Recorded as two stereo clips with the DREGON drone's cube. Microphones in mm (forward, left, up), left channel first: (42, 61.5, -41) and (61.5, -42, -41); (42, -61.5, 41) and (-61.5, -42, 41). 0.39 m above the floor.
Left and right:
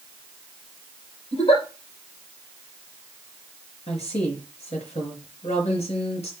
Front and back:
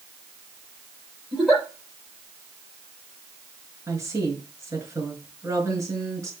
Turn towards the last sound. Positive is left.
turn(degrees=105)